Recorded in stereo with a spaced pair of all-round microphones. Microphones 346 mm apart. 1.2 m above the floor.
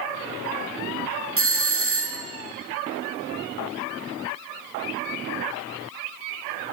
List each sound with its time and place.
1.4 s a doorbell: 40° right (ahead or behind), 0.7 m